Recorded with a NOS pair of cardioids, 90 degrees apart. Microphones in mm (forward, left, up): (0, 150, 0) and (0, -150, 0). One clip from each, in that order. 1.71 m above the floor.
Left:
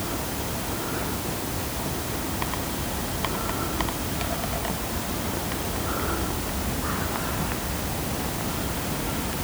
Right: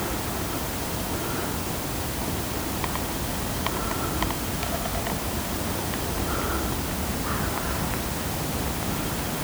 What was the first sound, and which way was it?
Only background noise.